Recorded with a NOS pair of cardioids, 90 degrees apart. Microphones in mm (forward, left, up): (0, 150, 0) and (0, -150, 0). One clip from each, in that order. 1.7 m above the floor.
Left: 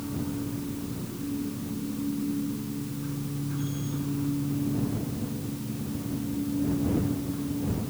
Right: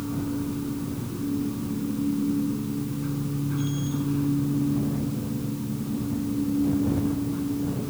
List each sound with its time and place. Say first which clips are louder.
0.0 s a machine running: right 4 dB; 35° right